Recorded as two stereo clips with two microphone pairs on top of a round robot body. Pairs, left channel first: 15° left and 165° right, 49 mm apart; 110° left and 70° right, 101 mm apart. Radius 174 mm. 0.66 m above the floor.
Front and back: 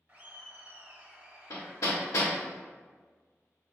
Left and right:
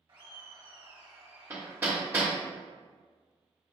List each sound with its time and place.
0.1 s laughter: 125° right, 1.5 m
1.5 s hammering: 5° right, 0.5 m